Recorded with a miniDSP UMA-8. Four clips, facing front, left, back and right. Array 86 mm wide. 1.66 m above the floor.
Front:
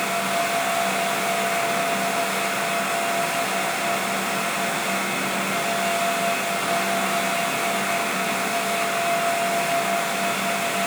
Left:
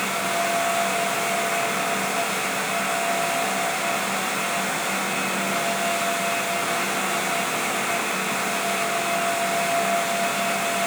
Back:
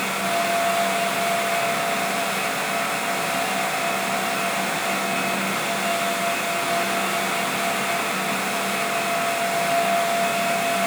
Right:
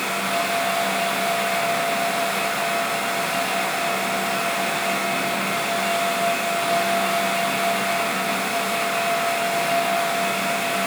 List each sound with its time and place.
Only background noise.